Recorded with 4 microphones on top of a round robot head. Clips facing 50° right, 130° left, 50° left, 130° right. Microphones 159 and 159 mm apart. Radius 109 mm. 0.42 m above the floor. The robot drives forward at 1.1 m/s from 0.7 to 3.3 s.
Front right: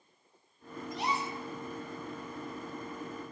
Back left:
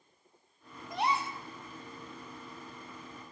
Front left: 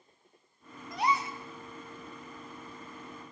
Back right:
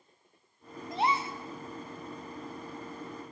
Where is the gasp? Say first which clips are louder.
Back left 3 dB, back right 1 dB; 165° left, 3 m.